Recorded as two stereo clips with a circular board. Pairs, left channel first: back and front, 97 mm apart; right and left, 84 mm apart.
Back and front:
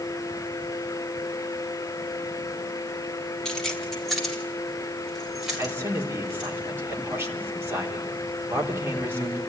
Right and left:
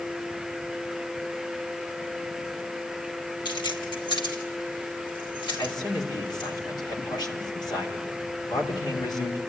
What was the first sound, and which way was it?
Keys jangling, 95° right.